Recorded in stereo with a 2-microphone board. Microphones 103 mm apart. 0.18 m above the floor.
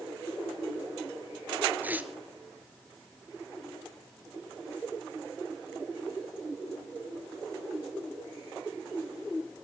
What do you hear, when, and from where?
1.8 s tearing paper: 20° right (ahead or behind), 1.1 m